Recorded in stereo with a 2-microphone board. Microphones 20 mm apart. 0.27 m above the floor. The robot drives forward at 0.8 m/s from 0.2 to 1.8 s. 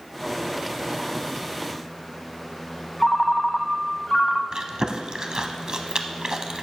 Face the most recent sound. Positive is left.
turn(degrees=-35)  # may be behind; listen again after turning